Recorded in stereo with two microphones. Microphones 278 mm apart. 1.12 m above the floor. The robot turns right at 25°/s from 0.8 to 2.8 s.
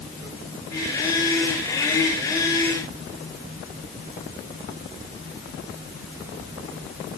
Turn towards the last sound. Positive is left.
No sound to turn to.